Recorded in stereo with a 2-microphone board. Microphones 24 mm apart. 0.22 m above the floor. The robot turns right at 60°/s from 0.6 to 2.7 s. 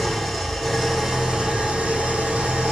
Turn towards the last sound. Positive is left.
turn(degrees=-70)